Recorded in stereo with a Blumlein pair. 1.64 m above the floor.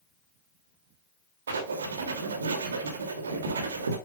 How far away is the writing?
About 2.5 m.